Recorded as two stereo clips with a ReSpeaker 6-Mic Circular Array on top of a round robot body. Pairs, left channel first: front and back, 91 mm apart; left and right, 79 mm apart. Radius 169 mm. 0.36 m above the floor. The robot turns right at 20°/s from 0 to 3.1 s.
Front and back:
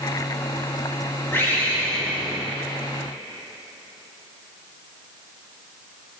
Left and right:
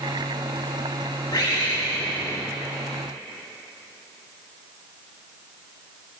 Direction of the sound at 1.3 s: 65° left.